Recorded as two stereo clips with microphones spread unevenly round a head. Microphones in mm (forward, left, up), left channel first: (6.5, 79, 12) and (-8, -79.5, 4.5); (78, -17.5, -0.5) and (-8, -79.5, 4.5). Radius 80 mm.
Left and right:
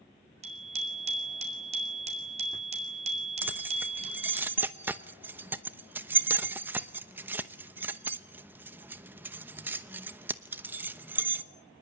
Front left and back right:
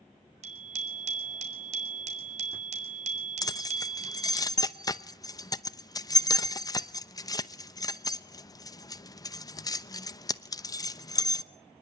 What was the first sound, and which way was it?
A bicycle bell, 145° right.